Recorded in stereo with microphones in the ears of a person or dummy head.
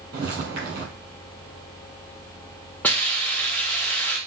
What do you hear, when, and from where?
0.1 s footsteps: 30° right (ahead or behind), 1.4 m
2.8 s a hiss: 5° left (ahead or behind), 0.7 m